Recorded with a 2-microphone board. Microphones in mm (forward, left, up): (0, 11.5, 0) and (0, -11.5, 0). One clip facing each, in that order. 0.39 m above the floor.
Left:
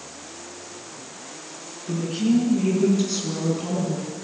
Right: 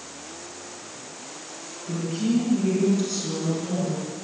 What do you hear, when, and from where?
1.9 s a woman speaking: 15° left (ahead or behind), 5.5 m; by 4.1 s 25° left (ahead or behind), 4.5 m